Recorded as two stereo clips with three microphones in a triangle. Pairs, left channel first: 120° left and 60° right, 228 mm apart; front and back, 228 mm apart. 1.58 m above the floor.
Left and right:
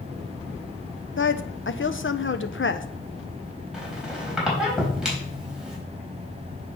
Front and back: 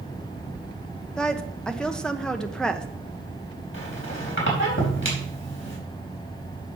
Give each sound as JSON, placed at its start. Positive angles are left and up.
{"t": 1.2, "sound": "a woman speaking", "azimuth_deg": 85, "distance_m": 0.9}
{"t": 3.7, "sound": "a squeak", "azimuth_deg": 25, "distance_m": 4.0}